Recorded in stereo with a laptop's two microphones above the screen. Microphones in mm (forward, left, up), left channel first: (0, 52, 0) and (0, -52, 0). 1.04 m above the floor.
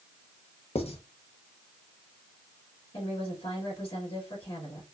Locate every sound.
0.8 s writing: 65° left (ahead or behind), 0.8 m
2.9 s a woman speaking: 50° left (ahead or behind), 2 m